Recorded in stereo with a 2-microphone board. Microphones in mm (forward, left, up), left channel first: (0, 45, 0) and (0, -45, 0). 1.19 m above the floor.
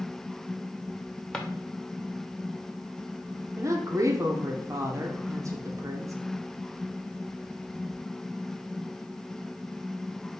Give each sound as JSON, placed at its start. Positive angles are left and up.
{"t": 1.3, "sound": "a drawer", "side_deg": 10, "distance_m": 0.7}
{"t": 3.6, "sound": "a woman speaking", "side_deg": -35, "distance_m": 0.7}